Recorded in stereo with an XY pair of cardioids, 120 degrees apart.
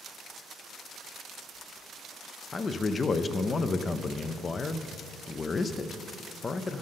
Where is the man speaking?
30° left, 0.6 m.